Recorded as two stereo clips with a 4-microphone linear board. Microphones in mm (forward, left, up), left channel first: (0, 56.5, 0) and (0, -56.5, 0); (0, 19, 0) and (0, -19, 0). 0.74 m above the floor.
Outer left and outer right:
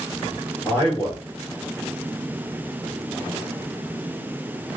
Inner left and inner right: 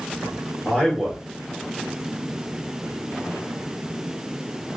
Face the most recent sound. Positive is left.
turn(degrees=20)  # may be behind; listen again after turning